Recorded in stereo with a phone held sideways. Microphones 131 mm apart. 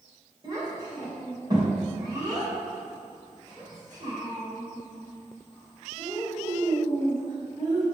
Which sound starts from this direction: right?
A child speaking, at 0.4 s.